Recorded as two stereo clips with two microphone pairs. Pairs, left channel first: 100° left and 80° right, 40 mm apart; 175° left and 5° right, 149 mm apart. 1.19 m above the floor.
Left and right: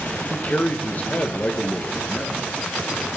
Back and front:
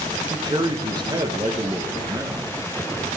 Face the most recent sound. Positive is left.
turn(degrees=50)